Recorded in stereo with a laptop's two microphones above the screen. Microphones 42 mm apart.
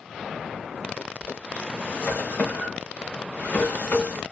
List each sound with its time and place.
1.0 s a drawer: 45° left (ahead or behind), 1.2 m